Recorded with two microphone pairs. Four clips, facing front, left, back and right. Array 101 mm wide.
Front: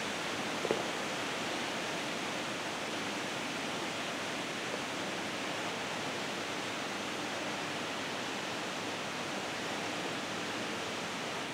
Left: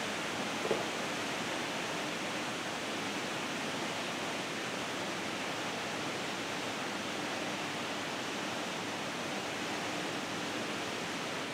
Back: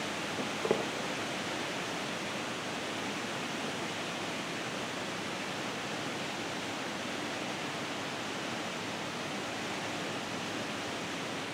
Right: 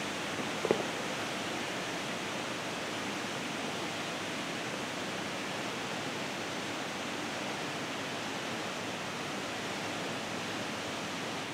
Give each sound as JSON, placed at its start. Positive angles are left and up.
{"t": 0.4, "sound": "footsteps", "azimuth_deg": -110, "distance_m": 1.3}